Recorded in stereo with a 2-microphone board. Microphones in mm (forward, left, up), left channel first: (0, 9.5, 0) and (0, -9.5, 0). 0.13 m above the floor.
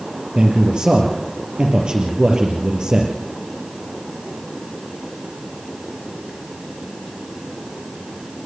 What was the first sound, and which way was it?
A man speaking, 55° right (ahead or behind).